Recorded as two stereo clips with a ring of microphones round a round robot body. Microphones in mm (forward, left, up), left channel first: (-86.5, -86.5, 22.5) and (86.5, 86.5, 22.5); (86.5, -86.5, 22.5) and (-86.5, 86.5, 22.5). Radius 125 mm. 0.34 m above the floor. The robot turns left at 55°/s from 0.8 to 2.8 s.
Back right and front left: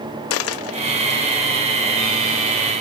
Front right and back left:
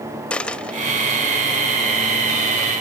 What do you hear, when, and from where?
0.3 s a dropped coin: 130° right, 0.7 m; by 1.2 s 150° right, 0.7 m